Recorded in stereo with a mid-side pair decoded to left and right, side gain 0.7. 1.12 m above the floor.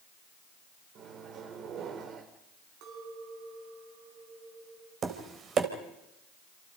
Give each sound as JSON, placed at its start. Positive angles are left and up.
{"t": 0.9, "sound": "a microwave", "azimuth_deg": -50, "distance_m": 3.0}
{"t": 2.8, "sound": "a clink", "azimuth_deg": -65, "distance_m": 6.5}
{"t": 5.0, "sound": "tapping", "azimuth_deg": -40, "distance_m": 3.5}